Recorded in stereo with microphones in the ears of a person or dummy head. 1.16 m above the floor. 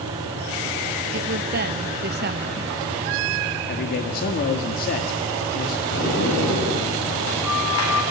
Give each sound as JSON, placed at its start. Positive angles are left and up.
{"t": 1.1, "sound": "a woman speaking", "side_deg": -45, "distance_m": 1.3}
{"t": 3.7, "sound": "a man speaking", "side_deg": 55, "distance_m": 2.0}
{"t": 5.9, "sound": "a sliding door", "side_deg": 75, "distance_m": 9.0}